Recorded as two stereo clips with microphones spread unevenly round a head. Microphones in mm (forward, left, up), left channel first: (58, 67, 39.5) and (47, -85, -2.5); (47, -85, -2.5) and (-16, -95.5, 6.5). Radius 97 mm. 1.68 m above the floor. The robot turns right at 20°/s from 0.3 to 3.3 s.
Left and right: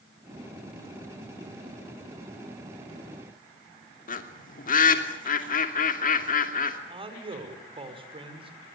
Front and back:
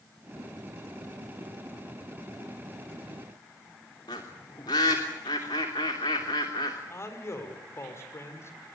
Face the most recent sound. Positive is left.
turn(degrees=-40)